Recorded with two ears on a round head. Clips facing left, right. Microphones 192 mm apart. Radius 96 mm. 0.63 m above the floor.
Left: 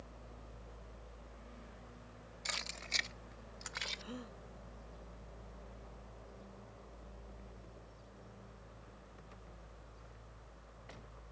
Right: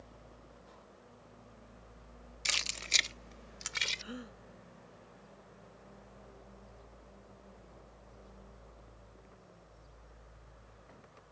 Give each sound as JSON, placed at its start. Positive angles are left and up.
{"t": 2.5, "sound": "keys jangling", "side_deg": -40}
{"t": 4.0, "sound": "a gasp", "side_deg": -10}